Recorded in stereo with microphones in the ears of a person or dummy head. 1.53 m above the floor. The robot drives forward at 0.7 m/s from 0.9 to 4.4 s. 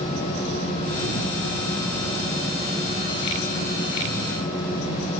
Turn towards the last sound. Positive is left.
No sound to turn to.